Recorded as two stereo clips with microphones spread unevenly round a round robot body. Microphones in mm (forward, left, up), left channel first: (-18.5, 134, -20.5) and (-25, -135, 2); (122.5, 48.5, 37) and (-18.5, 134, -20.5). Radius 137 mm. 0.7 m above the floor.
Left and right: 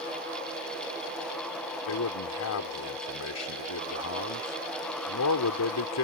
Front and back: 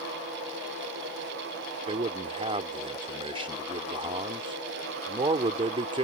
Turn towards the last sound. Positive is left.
turn(degrees=105)